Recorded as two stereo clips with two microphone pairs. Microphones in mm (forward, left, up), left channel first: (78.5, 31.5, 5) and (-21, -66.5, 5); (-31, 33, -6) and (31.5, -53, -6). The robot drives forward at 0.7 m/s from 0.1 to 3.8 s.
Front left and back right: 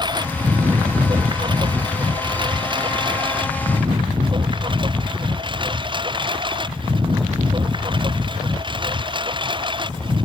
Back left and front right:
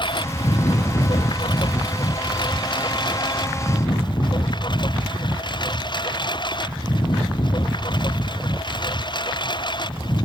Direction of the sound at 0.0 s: 165° left.